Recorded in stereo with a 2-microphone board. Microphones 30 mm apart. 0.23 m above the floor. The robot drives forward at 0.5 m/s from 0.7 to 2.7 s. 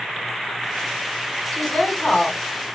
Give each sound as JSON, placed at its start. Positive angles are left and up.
{"t": 1.5, "sound": "a woman speaking", "side_deg": 45, "distance_m": 3.0}